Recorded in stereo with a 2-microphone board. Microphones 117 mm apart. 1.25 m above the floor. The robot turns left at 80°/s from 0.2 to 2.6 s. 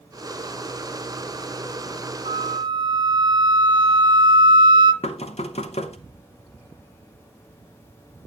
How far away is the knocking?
About 0.7 m.